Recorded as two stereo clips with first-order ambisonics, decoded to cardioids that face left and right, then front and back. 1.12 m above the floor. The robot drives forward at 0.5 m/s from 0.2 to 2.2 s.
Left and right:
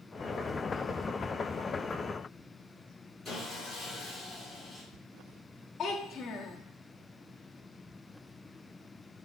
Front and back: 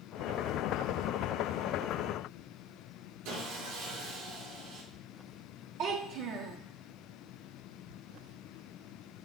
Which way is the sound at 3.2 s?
175° right.